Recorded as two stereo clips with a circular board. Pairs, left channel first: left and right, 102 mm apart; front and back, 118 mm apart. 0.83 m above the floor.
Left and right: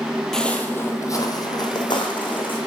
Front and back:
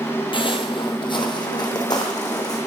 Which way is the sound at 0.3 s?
5° left.